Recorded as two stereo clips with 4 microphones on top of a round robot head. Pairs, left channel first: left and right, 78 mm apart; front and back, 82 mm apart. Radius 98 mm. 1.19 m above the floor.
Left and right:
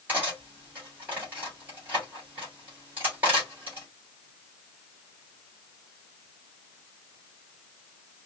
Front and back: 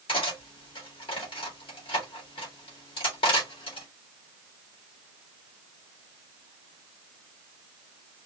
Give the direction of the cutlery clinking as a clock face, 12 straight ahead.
1 o'clock.